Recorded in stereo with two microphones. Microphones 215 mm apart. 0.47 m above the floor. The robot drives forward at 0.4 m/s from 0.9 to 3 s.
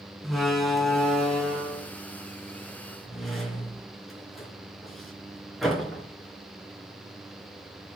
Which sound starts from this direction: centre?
A door slam, at 0.2 s.